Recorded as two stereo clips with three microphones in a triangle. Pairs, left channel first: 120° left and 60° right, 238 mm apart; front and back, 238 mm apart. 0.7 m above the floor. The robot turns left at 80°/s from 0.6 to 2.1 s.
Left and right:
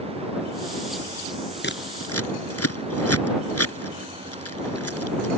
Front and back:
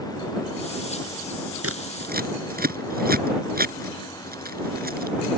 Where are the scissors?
165° left; by 5.3 s 130° left.